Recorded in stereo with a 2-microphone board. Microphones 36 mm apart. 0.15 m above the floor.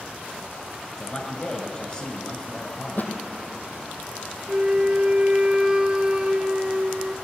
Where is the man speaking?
20° left (ahead or behind), 1.8 m.